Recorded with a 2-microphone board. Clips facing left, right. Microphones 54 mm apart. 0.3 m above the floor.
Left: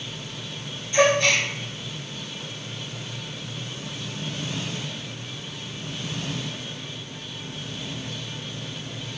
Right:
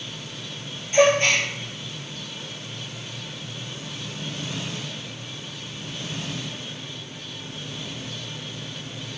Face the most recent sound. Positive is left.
turn(degrees=-40)  # may be behind; listen again after turning